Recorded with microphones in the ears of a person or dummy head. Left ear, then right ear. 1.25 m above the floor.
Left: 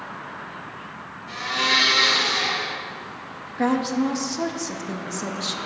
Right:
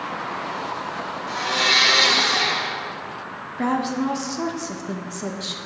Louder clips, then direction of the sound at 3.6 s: Left 1 dB; 5° left (ahead or behind).